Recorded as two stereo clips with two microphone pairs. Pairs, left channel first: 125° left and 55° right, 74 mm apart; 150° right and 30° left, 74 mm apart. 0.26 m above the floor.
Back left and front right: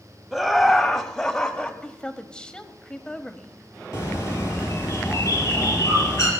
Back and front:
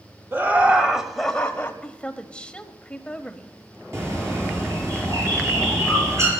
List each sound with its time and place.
0.3 s laughter: 30° left, 1.3 m; by 1.7 s 170° right, 1.2 m
1.8 s a woman speaking: 165° left, 0.9 m
3.9 s a bird: 75° left, 5.5 m